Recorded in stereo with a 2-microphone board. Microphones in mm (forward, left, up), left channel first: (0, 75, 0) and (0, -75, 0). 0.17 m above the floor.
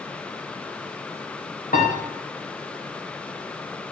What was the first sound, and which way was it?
A piano, 75° left (ahead or behind).